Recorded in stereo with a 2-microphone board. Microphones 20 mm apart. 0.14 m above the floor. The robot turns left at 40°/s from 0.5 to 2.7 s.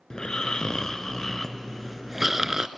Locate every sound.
0.1 s snoring: 50° left, 0.5 m; by 2.7 s 40° right, 0.5 m